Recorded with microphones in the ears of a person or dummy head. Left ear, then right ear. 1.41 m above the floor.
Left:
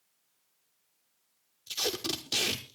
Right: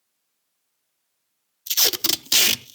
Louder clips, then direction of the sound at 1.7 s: Right 11 dB; 45° right (ahead or behind).